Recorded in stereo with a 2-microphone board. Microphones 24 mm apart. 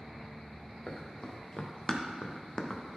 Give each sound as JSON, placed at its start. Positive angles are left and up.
{"t": 0.9, "sound": "running footsteps", "side_deg": 50, "distance_m": 2.0}